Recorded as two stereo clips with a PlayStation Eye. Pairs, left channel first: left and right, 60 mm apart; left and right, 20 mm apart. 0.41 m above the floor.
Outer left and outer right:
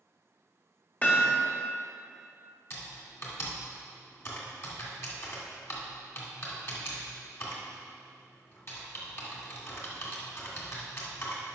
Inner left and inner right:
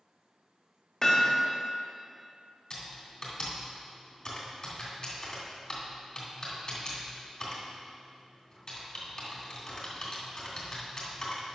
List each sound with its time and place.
1.0 s hammering: 30° left (ahead or behind), 1.5 m
2.7 s typing on a keyboard: 45° left (ahead or behind), 2 m